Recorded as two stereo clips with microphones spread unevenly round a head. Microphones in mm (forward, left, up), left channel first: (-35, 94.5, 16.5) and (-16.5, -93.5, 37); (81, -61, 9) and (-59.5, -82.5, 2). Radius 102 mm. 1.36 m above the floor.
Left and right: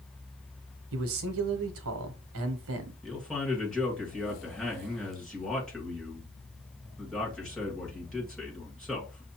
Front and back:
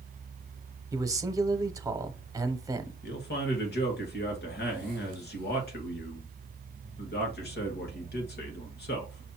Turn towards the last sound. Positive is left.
turn(degrees=10)